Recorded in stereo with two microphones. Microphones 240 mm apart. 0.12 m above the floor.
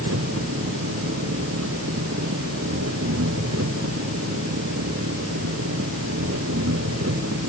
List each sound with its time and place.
0.0 s an engine running: 80° right